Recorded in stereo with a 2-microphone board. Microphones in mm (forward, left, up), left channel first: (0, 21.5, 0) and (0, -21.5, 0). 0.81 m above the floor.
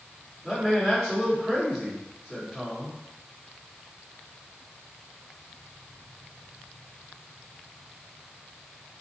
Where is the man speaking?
Centre (ahead or behind), 1.7 m.